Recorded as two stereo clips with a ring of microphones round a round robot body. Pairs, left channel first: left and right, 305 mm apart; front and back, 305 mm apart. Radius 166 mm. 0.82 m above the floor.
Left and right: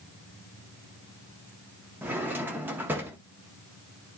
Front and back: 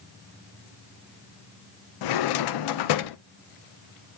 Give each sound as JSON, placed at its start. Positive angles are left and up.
{"t": 2.0, "sound": "a drawer", "azimuth_deg": -5, "distance_m": 0.6}